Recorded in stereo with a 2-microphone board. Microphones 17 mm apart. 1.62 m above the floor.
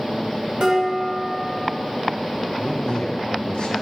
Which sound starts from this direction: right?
Dishes clattering, at 0.6 s.